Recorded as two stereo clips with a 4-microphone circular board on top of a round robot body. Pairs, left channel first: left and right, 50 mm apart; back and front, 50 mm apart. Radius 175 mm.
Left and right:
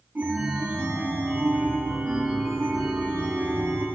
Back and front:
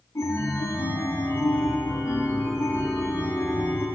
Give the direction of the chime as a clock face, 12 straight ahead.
5 o'clock.